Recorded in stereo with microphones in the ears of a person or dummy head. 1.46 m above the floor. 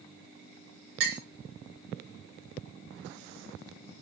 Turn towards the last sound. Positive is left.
turn(degrees=-55)  # may be behind; listen again after turning